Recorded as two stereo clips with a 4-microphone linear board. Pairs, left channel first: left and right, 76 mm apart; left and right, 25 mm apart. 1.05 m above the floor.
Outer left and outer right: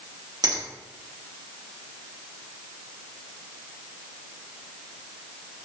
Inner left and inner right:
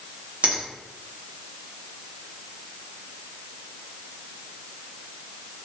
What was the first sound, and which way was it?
A finger snap, 55° right (ahead or behind).